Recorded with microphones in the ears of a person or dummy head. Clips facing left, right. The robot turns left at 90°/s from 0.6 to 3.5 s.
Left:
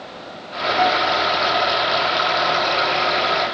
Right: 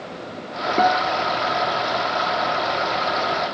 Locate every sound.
0.8 s a guitar: 65° right, 1.3 m; by 1.3 s 110° right, 1.3 m